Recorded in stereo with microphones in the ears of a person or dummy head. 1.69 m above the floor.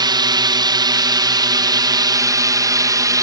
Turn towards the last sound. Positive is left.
turn(degrees=-20)  # may be behind; listen again after turning